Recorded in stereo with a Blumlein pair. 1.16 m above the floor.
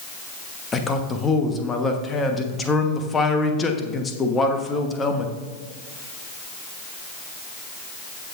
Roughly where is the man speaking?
Ahead.